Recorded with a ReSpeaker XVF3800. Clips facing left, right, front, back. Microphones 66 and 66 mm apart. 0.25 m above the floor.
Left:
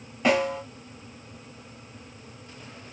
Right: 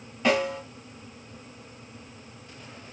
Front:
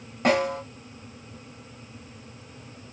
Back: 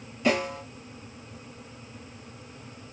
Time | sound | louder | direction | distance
0.2 | a snare drum | left 1 dB, front 3 dB | 10° left | 1.4 m